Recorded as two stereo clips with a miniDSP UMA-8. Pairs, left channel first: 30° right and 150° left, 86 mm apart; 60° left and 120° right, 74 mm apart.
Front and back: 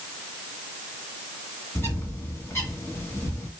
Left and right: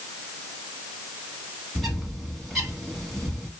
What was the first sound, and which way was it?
A bird, 25° right.